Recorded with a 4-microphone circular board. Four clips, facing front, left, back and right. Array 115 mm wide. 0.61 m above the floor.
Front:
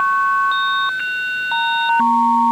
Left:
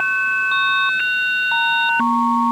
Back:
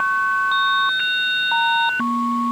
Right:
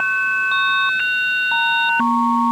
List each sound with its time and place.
Only background noise.